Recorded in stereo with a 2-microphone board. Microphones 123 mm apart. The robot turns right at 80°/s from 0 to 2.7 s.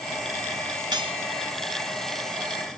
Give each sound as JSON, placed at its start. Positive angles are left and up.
{"t": 0.9, "sound": "cutlery clinking", "side_deg": -35, "distance_m": 2.0}